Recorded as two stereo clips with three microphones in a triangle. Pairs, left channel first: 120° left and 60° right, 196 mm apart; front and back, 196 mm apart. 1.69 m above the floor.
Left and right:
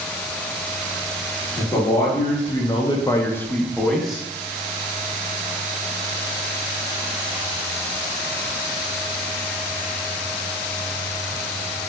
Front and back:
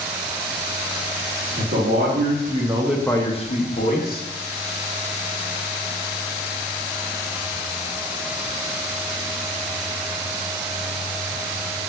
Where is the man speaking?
170° right, 1.2 m; by 4.2 s 30° left, 1.2 m.